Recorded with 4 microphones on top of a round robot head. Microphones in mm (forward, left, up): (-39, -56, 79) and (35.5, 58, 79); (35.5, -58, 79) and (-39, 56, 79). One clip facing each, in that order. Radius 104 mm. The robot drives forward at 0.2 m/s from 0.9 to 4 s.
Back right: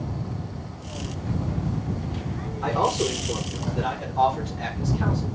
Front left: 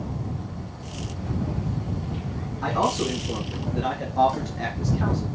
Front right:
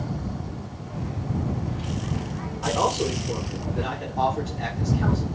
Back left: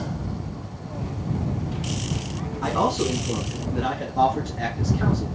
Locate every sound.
2.6 s a man speaking: 100° left, 2.5 m; by 5.3 s 105° left, 2.5 m